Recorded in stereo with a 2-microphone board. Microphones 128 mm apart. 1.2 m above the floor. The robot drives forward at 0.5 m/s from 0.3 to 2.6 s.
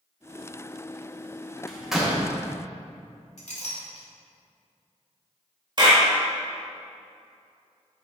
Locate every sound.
1.7 s a door slam: 5° right (ahead or behind), 1.2 m
3.4 s a clink: 65° left (ahead or behind), 1.9 m
5.8 s a clap: 35° right (ahead or behind), 1.8 m